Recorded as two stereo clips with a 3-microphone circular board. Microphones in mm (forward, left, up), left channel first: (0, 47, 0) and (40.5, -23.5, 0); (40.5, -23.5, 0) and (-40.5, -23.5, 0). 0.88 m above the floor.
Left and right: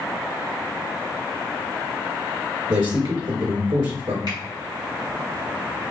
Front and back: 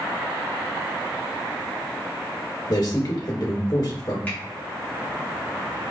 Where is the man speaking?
50° right, 2.5 m.